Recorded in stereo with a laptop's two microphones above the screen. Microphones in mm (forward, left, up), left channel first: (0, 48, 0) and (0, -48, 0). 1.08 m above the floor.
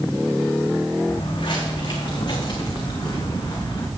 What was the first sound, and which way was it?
Footsteps, 50° left (ahead or behind).